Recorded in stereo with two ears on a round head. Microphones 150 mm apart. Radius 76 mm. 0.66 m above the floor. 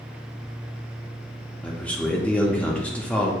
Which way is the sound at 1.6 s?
10° left (ahead or behind).